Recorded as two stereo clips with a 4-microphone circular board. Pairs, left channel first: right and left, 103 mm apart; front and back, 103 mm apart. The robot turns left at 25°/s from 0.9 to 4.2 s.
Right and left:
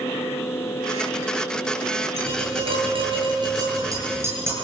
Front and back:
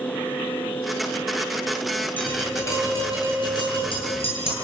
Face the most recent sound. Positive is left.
turn(degrees=25)